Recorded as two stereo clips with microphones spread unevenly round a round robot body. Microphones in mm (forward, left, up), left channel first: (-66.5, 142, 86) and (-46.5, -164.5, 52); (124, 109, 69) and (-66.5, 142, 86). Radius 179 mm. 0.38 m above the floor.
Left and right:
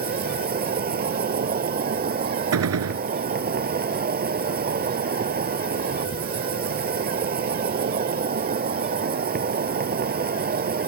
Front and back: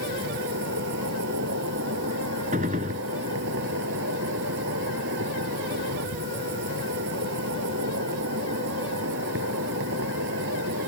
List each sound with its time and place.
0.0 s an insect: 145° right
2.5 s a gunshot: 125° right